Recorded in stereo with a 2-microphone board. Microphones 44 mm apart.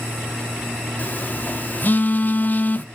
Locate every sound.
1.0 s a phone buzzing: 45° left (ahead or behind), 1.0 m